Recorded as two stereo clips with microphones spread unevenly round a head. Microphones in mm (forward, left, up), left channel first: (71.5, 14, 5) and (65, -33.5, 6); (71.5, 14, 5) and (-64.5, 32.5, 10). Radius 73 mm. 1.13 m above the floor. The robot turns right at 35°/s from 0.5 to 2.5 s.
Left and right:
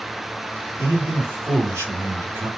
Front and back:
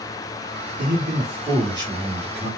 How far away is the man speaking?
About 3 m.